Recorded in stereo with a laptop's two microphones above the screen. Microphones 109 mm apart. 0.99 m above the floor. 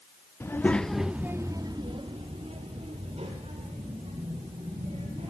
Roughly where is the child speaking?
Left.